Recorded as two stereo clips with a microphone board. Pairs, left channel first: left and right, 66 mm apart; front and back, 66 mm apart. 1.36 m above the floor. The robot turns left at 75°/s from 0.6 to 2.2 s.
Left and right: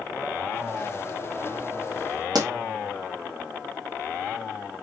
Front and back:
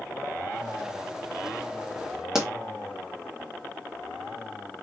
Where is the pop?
95° right, 1.0 m.